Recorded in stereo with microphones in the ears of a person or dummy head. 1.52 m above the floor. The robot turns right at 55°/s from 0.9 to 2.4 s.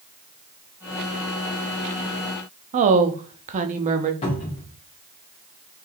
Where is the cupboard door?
30° left (ahead or behind), 1.3 m.